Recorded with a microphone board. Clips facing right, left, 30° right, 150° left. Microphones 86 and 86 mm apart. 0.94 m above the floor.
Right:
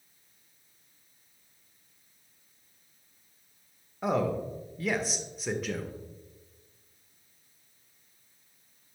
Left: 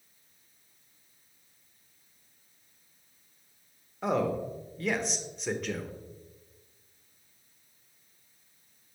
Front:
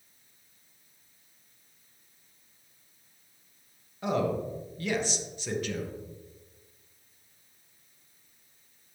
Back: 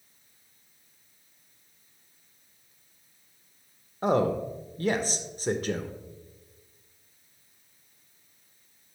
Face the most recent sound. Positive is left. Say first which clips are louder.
# even, back 4 dB
turn(degrees=-175)